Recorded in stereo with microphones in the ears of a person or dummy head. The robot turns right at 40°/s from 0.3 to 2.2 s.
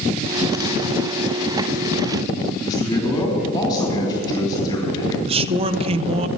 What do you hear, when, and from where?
2.6 s a man speaking: 15° left (ahead or behind), 2.5 m
5.3 s a man speaking: 25° right (ahead or behind), 0.5 m